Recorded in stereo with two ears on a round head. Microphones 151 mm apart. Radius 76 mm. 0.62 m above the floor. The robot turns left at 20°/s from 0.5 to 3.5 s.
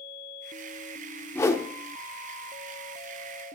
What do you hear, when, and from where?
1.4 s a whoosh: 15° left (ahead or behind), 1.1 m; by 1.7 s 20° left (ahead or behind), 1.1 m